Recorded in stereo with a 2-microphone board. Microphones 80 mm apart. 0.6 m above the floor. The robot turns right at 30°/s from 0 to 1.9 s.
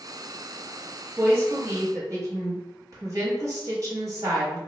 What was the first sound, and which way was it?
A woman speaking, 30° right (ahead or behind).